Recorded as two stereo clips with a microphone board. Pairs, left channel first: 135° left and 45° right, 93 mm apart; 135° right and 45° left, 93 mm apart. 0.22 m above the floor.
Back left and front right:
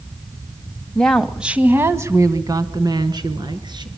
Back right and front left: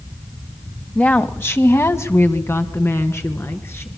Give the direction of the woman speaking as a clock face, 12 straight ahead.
6 o'clock.